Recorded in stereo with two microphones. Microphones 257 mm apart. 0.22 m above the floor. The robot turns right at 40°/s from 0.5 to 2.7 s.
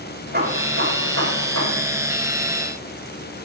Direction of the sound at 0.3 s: 140° right.